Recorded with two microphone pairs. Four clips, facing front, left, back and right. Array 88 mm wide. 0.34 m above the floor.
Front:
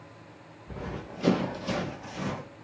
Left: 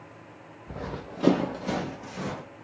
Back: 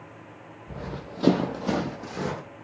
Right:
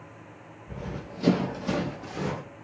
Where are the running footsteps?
110° left, 1.0 m; by 2.4 s 160° right, 1.3 m.